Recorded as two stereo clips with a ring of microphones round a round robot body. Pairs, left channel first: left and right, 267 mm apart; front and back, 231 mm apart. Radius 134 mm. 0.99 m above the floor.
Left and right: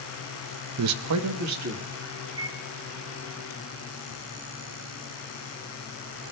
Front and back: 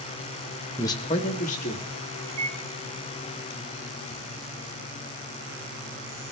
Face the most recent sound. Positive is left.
turn(degrees=-160)